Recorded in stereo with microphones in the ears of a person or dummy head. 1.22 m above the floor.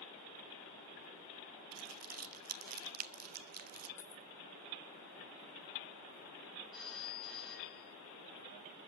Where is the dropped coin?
15° left (ahead or behind), 0.7 m.